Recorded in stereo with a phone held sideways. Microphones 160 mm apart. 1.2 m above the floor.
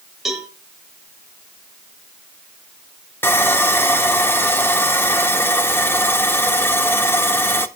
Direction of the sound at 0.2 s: Centre (ahead or behind).